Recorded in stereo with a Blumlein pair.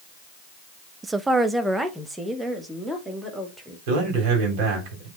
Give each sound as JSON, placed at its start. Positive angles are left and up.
{"t": 1.0, "sound": "a woman speaking", "azimuth_deg": -10, "distance_m": 0.5}
{"t": 3.9, "sound": "a man speaking", "azimuth_deg": -45, "distance_m": 3.5}